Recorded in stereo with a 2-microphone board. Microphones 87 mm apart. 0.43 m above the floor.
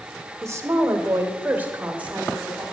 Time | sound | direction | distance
0.4 | a woman speaking | 35° right (ahead or behind) | 1.4 m